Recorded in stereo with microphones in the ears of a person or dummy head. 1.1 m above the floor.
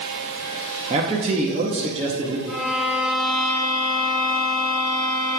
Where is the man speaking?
30° right (ahead or behind), 0.8 m.